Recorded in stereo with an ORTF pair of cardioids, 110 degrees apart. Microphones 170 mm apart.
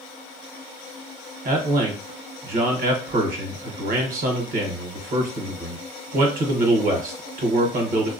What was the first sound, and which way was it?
A man speaking, 55° right.